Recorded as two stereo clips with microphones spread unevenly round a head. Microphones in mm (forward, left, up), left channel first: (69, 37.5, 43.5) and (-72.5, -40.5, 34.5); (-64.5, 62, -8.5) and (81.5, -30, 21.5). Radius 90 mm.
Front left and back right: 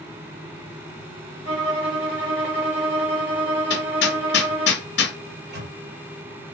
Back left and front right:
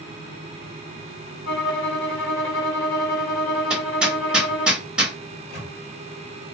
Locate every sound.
1.4 s a violin: 165° right, 2 m
3.7 s hammering: 50° left, 0.8 m
5.3 s a microwave: 175° right, 2 m